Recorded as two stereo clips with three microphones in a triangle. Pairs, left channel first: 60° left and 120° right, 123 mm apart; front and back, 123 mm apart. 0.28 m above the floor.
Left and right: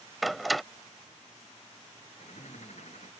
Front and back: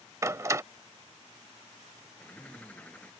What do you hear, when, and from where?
0.2 s a door slam: 150° left
2.2 s a bird: 80° left